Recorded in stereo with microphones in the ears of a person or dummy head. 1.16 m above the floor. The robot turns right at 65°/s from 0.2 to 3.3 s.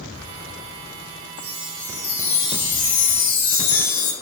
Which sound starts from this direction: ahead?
A chime, at 1.4 s.